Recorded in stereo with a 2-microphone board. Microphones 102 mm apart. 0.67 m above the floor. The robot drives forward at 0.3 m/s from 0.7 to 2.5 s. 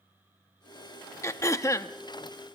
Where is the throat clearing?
30° left (ahead or behind), 0.7 m.